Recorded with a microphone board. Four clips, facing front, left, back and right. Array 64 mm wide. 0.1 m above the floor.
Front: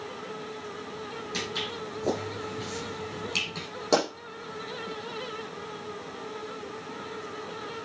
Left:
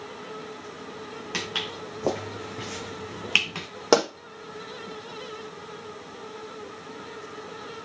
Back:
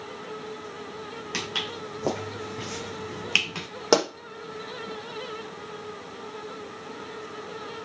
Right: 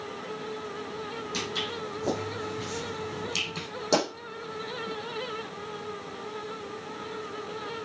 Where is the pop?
125° left, 5 m.